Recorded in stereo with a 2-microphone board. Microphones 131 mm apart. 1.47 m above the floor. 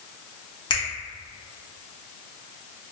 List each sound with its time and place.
0.7 s a finger snap: 35° left (ahead or behind), 0.8 m